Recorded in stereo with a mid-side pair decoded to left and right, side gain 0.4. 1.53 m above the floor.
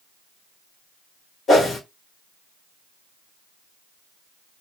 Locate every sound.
1.5 s a whoosh: 60° left, 1.3 m